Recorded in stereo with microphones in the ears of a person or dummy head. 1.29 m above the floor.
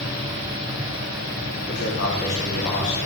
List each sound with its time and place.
1.7 s a man speaking: 65° left (ahead or behind), 4 m; by 3.0 s 35° left (ahead or behind), 3.5 m